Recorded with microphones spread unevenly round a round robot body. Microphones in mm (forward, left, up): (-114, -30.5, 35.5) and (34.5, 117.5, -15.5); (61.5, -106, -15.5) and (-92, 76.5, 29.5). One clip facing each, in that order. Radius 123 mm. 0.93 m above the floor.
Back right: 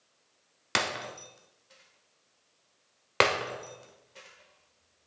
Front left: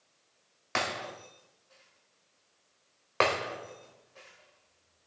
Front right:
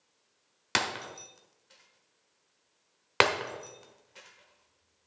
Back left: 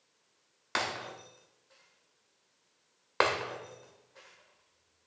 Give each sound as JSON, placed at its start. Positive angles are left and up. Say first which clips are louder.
{"t": 0.8, "sound": "breaking glass", "louder": "back right 1 dB, front right 2 dB", "azimuth_deg": -90, "distance_m": 1.2}